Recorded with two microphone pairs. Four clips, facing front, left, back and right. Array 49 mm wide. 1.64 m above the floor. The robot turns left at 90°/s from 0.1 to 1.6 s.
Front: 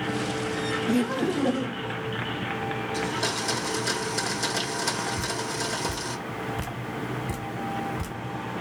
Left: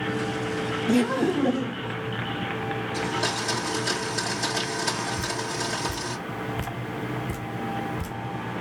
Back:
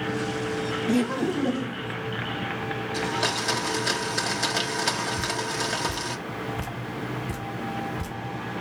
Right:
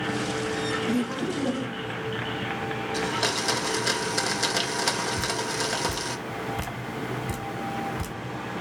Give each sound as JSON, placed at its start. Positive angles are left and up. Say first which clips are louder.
{"t": 0.9, "sound": "laughter", "louder": "left 5 dB, back 1 dB", "azimuth_deg": 110, "distance_m": 0.5}
{"t": 2.9, "sound": "a blender", "louder": "right 1 dB, back 4 dB", "azimuth_deg": -145, "distance_m": 1.8}
{"t": 5.2, "sound": "dripping", "louder": "right 1 dB, back 2 dB", "azimuth_deg": -75, "distance_m": 2.5}